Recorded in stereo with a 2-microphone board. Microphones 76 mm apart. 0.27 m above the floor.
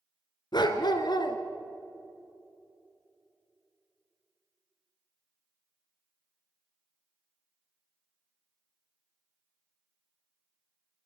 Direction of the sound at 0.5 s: 75° left (ahead or behind).